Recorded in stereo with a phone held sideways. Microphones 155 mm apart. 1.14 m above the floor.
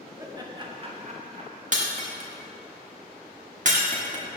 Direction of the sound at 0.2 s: 20° right (ahead or behind).